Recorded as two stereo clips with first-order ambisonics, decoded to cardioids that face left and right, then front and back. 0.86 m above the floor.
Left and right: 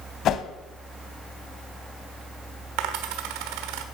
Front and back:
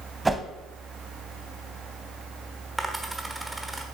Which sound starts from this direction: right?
A dropped coin, at 2.8 s.